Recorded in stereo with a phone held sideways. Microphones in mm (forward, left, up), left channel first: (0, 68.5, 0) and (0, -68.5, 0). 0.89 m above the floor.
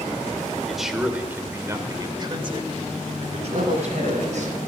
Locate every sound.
0.7 s a man speaking: centre (ahead or behind), 2.5 m; by 4.5 s 65° right (ahead or behind), 4 m
3.5 s a man speaking: 85° right, 5.5 m